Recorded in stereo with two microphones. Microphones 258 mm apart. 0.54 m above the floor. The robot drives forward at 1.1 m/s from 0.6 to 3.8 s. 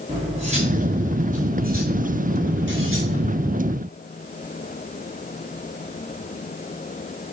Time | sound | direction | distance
0.1 | cutlery clinking | 25° right (ahead or behind) | 4.5 m